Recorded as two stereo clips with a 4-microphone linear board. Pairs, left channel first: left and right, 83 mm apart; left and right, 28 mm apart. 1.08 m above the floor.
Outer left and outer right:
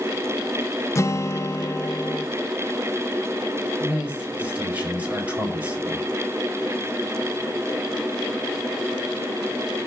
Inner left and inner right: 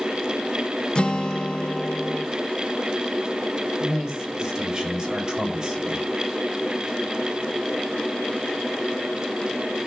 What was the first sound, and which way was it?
A guitar, 35° left (ahead or behind).